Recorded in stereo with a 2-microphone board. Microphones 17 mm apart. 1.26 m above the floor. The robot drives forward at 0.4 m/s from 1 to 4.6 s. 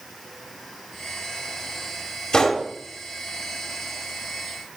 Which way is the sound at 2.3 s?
45° left (ahead or behind).